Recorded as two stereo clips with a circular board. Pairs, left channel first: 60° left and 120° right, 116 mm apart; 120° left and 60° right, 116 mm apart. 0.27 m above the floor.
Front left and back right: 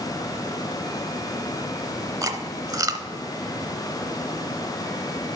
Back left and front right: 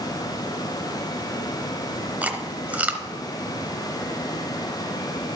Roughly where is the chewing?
Behind right.